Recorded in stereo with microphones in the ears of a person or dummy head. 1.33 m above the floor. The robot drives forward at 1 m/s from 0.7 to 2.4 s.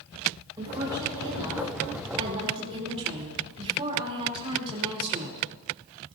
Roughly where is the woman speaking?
Centre.